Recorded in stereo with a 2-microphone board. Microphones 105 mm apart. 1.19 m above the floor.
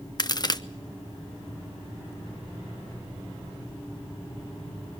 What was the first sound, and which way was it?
A crack, 40° left (ahead or behind).